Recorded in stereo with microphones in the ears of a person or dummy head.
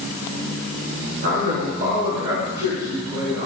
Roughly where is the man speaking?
Right.